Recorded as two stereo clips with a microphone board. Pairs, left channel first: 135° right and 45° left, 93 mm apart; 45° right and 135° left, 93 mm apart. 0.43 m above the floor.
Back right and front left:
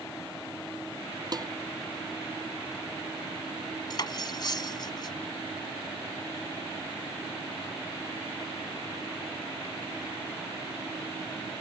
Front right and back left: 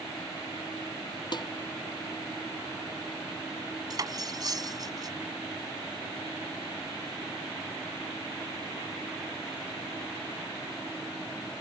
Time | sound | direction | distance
1.3 | dishes clattering | 5° right | ?
3.9 | cutlery clinking | straight behind | ?